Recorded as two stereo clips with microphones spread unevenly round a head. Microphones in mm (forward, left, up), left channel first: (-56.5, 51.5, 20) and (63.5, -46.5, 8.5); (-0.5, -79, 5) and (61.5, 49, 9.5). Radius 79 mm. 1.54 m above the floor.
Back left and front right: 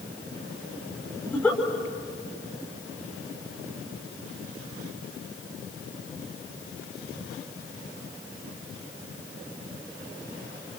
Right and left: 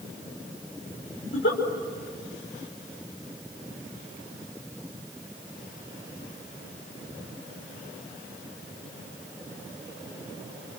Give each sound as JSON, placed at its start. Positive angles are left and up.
{"t": 1.2, "sound": "a giggle", "azimuth_deg": -140, "distance_m": 5.0}